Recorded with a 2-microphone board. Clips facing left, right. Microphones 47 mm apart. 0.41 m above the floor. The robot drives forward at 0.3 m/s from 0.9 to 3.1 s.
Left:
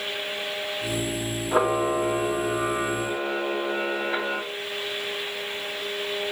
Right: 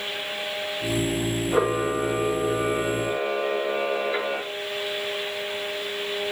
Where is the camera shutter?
40° left (ahead or behind), 2.5 m; by 4.4 s 30° left (ahead or behind), 3 m.